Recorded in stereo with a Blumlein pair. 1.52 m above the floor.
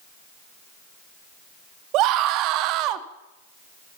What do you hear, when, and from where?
1.9 s a scream: 40° right, 1.0 m